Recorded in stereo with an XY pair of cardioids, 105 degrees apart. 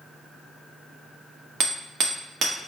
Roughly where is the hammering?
Ahead right.